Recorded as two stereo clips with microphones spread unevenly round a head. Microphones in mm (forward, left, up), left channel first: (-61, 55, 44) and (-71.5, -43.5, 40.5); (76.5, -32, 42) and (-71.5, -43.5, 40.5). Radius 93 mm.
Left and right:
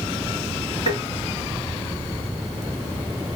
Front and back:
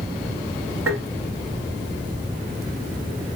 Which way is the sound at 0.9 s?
105° left.